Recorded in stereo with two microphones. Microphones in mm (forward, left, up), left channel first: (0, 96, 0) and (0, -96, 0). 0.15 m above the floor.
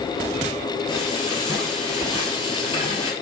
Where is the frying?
25° left (ahead or behind), 2 m.